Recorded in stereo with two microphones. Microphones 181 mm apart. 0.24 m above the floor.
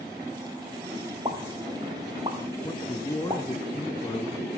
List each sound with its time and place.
1.2 s a pop: 30° right (ahead or behind), 5.5 m
2.6 s a man speaking: 25° left (ahead or behind), 2.5 m